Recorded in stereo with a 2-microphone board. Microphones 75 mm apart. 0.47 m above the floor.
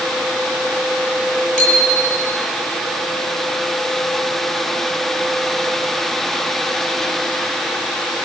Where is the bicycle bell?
5° left (ahead or behind), 8 m.